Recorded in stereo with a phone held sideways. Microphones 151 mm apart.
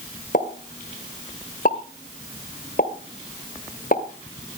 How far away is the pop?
About 1.9 m.